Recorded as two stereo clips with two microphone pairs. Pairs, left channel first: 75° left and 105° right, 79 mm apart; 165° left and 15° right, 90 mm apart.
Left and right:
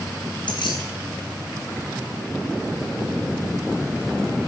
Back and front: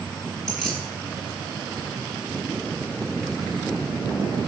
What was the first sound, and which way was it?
Keys jangling, 80° left.